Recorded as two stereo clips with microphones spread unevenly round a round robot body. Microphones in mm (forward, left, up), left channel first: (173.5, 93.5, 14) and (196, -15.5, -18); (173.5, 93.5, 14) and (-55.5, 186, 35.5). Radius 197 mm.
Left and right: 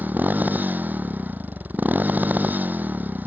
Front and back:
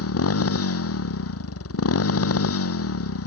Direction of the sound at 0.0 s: 5° right.